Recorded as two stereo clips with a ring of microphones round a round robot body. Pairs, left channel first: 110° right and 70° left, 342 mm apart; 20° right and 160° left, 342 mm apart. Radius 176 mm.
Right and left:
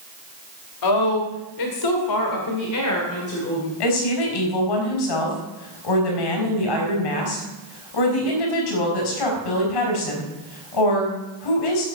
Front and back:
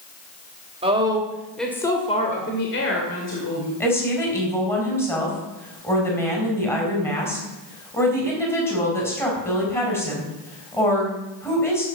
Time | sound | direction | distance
0.8 | a woman speaking | 130° right | 2.5 m
3.8 | a woman speaking | 105° right | 4.5 m